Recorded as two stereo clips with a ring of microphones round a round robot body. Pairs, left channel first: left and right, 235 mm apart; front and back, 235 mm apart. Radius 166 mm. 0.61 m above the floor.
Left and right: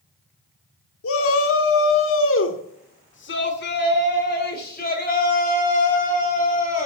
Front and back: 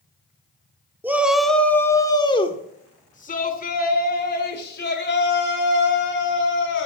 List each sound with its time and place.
1.0 s a shout: 100° left, 1.5 m; by 6.9 s 30° left, 4 m